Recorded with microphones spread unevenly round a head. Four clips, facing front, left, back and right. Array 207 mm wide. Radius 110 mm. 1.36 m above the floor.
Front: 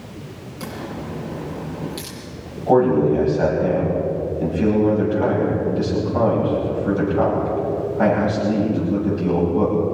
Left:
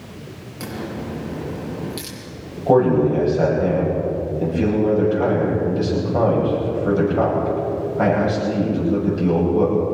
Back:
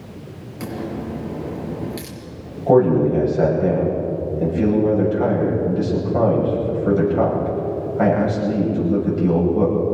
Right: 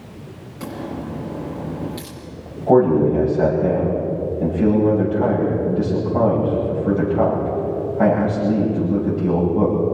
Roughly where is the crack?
Behind left.